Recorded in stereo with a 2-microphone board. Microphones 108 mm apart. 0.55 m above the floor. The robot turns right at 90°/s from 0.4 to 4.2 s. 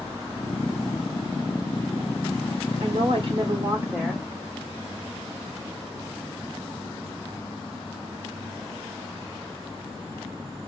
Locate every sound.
2.8 s a woman speaking: 115° right, 1.2 m; by 4.2 s 10° left, 1.2 m